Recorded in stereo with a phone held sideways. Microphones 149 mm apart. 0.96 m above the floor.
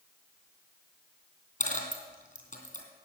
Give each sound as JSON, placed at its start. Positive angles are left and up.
{"t": 1.6, "sound": "a dropped coin", "side_deg": 55, "distance_m": 2.5}